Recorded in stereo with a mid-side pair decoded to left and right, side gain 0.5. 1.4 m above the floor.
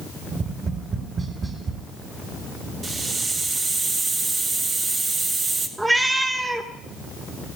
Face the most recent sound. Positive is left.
turn(degrees=-15)